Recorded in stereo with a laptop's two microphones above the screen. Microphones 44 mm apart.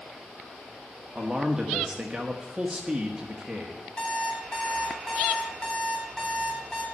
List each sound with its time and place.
1.1 s a man speaking: 15° right (ahead or behind), 1.1 m
4.0 s an alarm clock: 25° left (ahead or behind), 4 m